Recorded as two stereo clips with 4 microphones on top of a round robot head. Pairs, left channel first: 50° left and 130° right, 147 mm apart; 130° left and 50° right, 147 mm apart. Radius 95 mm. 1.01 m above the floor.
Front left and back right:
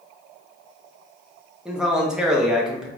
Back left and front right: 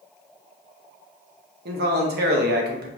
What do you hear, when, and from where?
1.6 s a man speaking: 45° right, 1.0 m